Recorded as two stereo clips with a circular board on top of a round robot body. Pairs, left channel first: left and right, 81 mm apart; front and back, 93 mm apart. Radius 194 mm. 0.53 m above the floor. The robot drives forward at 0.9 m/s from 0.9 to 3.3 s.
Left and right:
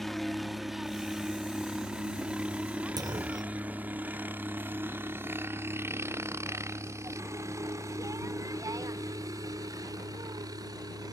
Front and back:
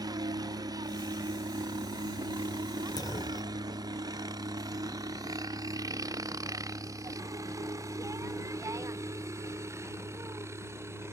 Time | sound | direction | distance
0.0 | a helicopter | 175° left | ?
3.0 | a clunk | 50° right | ?